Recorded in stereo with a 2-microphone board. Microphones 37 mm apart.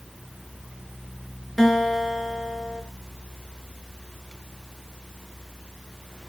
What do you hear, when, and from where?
1.6 s a guitar: centre (ahead or behind), 3.5 m